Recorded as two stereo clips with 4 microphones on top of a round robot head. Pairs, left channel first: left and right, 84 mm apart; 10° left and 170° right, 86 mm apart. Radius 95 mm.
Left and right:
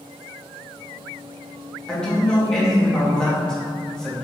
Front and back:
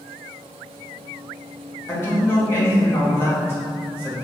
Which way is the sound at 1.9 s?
15° left.